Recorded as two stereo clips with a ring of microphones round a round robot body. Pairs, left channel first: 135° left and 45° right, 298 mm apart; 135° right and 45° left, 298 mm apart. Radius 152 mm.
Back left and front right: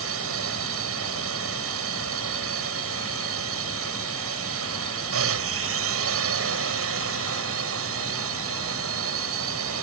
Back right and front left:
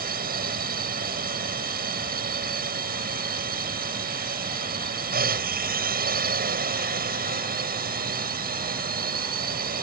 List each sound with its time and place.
0.0 s a drone: 10° right